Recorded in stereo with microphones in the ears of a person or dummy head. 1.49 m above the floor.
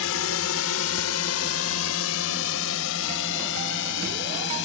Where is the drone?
70° left (ahead or behind); by 4.7 s 65° left (ahead or behind).